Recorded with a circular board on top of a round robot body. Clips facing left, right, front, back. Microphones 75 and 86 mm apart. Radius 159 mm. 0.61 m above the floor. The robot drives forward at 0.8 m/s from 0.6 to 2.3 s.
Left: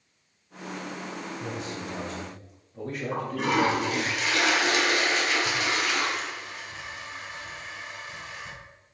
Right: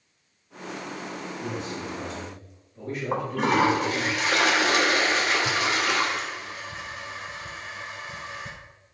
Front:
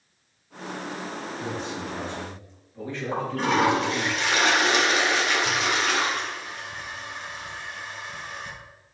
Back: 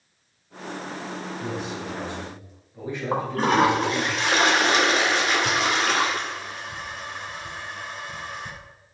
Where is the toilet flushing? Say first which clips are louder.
Right 3 dB, back 3 dB; 135° right, 2 m.